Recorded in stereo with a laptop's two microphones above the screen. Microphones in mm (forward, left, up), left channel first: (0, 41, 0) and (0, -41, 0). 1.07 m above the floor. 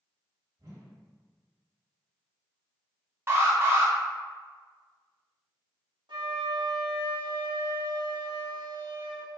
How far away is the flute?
About 1.0 m.